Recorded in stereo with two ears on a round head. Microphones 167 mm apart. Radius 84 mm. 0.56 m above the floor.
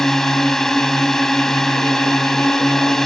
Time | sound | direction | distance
0.0 | a drone | centre (ahead or behind) | ?